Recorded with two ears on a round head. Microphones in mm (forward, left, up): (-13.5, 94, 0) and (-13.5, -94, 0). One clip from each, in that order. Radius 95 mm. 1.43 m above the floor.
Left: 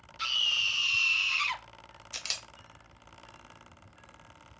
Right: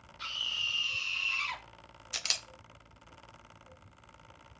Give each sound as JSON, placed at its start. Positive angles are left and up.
{"t": 0.2, "sound": "a scream", "side_deg": 70, "distance_m": 1.9}
{"t": 2.1, "sound": "a camera shutter", "side_deg": -10, "distance_m": 0.7}